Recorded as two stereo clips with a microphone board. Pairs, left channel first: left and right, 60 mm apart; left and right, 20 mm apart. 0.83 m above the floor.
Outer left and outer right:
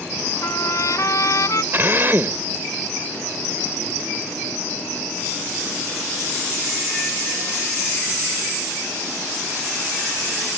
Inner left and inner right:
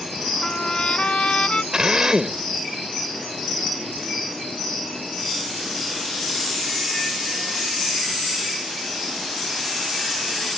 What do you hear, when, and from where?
0.4 s a trumpet: 60° left (ahead or behind)
1.7 s a drill: 40° right (ahead or behind)